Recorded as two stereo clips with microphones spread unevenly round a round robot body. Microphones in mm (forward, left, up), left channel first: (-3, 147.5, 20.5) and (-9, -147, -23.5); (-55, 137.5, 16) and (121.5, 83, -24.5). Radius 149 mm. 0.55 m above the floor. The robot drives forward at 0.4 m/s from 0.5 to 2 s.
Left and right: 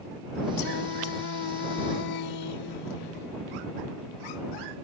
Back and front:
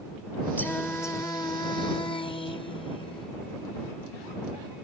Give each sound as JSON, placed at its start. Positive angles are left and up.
{"t": 0.6, "sound": "singing", "azimuth_deg": 75}